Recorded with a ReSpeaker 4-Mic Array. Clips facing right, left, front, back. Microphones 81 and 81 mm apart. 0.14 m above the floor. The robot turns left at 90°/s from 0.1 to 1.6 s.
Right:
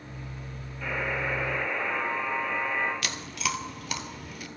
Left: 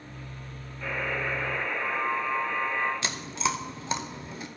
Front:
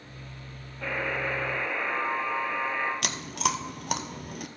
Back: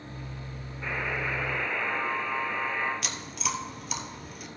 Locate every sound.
0.8 s a buzzer: 10° left, 3 m; by 2.9 s 60° right, 3 m
3.0 s chewing: 25° left, 0.5 m